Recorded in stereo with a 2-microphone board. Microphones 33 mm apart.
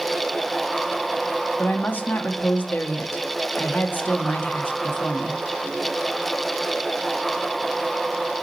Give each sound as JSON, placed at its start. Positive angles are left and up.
{"t": 1.6, "sound": "a woman speaking", "side_deg": 65, "distance_m": 1.6}